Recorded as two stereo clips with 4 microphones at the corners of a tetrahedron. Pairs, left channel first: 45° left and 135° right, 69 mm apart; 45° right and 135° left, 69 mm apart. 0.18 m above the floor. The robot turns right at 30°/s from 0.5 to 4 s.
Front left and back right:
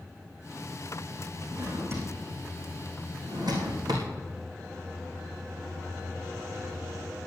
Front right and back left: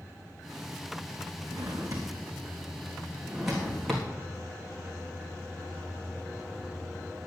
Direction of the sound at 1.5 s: 160° left.